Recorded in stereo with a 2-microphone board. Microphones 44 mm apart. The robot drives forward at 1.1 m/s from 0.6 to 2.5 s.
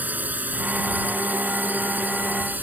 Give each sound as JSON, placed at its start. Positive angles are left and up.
{"t": 0.0, "sound": "a drone", "side_deg": -45}